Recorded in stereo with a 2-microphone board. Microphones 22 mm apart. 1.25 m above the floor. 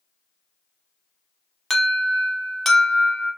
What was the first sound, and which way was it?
An alarm, 10° left (ahead or behind).